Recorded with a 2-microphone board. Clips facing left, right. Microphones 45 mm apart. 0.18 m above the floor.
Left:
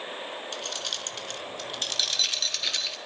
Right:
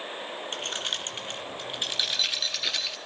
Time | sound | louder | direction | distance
0.5 | keys jangling | right 5 dB | 40° right (ahead or behind) | 1.8 m